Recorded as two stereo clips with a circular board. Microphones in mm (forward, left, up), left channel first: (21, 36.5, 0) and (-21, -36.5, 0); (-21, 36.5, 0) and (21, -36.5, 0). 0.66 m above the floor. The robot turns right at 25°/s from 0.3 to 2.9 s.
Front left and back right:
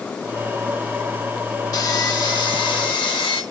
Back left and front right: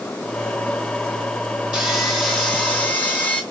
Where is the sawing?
20° left, 3 m; by 3.4 s 50° left, 3 m.